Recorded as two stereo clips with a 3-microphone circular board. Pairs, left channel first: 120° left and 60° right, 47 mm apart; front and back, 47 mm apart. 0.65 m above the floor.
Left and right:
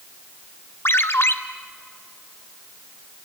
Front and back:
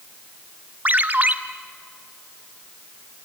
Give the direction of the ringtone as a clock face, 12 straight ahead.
8 o'clock.